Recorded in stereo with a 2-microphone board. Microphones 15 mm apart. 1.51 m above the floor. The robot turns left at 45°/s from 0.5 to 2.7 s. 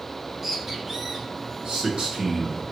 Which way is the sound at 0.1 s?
20° right.